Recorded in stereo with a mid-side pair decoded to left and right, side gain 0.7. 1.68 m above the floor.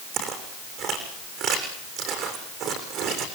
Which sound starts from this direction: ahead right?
Footsteps, at 0.1 s.